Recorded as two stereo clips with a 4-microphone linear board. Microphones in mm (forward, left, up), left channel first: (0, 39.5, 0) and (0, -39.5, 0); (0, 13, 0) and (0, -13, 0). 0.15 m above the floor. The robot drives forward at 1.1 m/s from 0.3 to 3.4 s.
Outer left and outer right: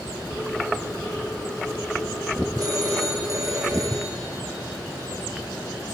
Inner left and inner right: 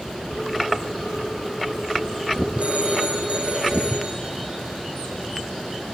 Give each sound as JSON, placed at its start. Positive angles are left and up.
{"t": 2.6, "sound": "a phone ringing", "side_deg": -50, "distance_m": 5.5}